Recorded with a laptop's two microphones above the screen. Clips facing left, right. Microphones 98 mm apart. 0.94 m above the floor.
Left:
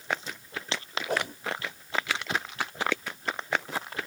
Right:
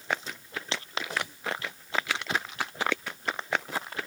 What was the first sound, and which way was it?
A whoosh, 55° left (ahead or behind).